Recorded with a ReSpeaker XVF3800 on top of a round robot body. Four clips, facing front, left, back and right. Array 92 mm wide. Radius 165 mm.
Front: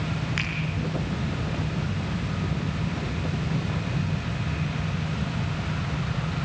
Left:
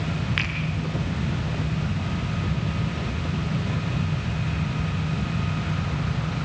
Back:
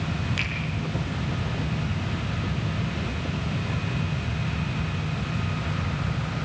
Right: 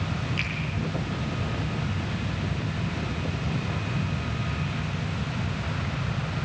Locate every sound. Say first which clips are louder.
0.4 s a finger snap: left 4 dB, even; 65° left, 7.5 m